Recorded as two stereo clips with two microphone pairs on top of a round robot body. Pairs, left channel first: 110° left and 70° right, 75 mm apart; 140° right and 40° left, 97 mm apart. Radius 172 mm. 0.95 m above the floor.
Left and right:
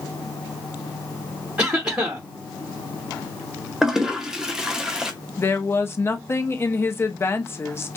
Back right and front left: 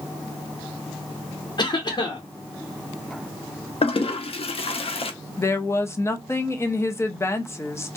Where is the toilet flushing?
150° right, 0.7 m.